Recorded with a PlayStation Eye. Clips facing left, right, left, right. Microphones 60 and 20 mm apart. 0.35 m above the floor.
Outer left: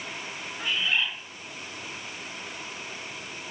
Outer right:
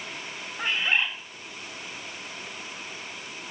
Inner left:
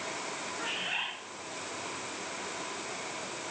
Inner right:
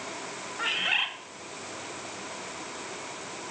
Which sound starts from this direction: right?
A bird, at 0.6 s.